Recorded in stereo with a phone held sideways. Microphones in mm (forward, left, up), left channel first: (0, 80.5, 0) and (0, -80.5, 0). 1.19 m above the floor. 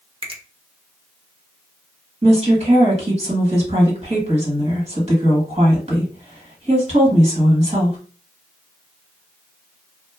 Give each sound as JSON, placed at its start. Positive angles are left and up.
{"t": 0.2, "sound": "a finger snap", "side_deg": -35, "distance_m": 0.6}
{"t": 2.2, "sound": "a woman speaking", "side_deg": -40, "distance_m": 1.6}